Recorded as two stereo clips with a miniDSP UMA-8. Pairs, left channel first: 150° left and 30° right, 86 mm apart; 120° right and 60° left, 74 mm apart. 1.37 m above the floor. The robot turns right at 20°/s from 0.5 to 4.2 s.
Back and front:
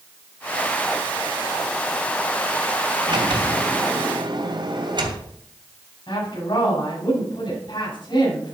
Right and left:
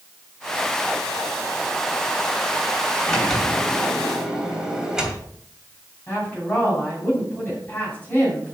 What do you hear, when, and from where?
3.1 s a sliding door: 45° right, 2.5 m; by 5.3 s 20° right, 2.5 m
6.1 s a woman speaking: 175° left, 6 m